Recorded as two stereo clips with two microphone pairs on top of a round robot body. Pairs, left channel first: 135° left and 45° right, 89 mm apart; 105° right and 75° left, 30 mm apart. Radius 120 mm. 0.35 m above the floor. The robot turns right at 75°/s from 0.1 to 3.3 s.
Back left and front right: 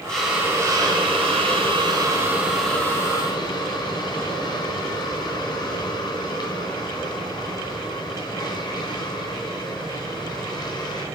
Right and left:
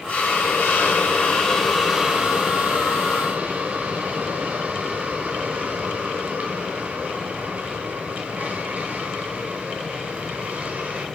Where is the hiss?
140° right, 2.5 m; by 11.1 s 100° left, 2.5 m.